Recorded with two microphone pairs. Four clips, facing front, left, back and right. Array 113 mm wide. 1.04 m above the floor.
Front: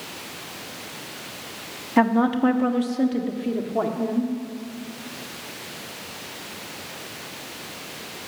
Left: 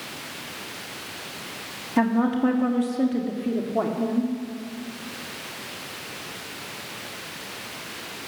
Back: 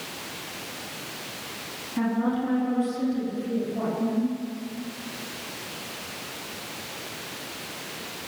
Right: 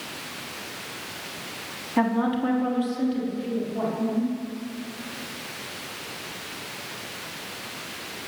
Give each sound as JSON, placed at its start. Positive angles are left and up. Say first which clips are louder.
{"t": 2.0, "sound": "a woman speaking", "louder": "left 2 dB, front 7 dB", "azimuth_deg": 0, "distance_m": 1.6}